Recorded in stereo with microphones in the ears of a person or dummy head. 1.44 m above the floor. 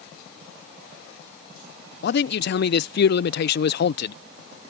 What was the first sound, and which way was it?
A man speaking, 55° left (ahead or behind).